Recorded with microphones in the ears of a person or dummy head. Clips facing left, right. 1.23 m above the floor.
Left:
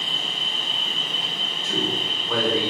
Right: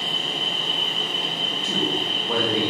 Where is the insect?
25° left (ahead or behind), 1.1 m.